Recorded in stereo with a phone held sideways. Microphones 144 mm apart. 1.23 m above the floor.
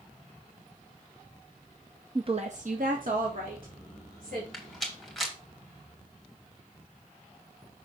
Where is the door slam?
No door slam in this recording.